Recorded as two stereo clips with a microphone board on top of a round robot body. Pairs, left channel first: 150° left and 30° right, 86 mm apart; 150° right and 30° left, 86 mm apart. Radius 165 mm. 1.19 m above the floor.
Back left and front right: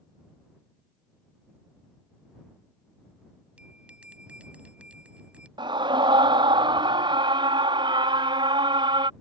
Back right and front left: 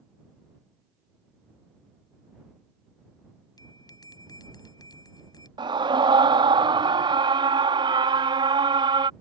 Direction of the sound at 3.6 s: 105° right.